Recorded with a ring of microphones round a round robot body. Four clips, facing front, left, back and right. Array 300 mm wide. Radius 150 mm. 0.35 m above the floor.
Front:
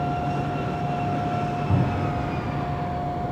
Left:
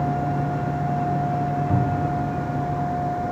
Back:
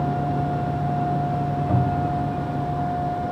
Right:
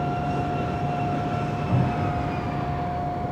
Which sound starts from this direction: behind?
A cupboard door, at 1.7 s.